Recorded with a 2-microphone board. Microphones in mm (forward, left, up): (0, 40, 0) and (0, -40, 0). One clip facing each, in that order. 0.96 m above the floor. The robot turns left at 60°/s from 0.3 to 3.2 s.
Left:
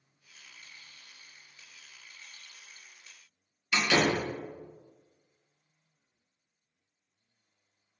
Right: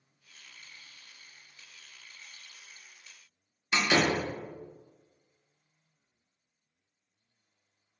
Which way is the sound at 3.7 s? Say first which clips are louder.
Even; 20° right (ahead or behind).